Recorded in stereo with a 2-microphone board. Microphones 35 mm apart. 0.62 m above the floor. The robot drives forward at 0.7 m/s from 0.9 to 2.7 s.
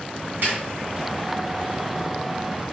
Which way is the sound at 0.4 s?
65° right (ahead or behind).